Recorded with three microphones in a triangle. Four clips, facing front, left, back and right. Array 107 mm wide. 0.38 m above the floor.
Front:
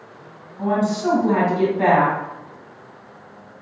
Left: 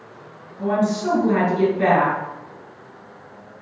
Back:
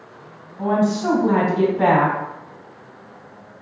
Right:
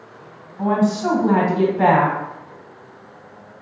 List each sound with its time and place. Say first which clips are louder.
0.6 s a woman speaking: right 2 dB, back 1 dB; 105° right, 2 m